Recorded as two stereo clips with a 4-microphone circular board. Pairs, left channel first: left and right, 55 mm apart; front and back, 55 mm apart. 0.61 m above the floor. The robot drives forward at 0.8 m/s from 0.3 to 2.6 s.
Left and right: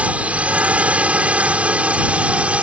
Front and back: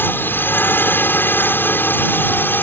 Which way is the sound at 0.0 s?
35° right.